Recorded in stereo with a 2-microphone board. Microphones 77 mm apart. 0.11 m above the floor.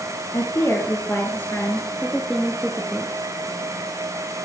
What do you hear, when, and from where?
0.3 s a woman speaking: 40° left (ahead or behind), 2 m; by 3.1 s 15° right (ahead or behind), 1.5 m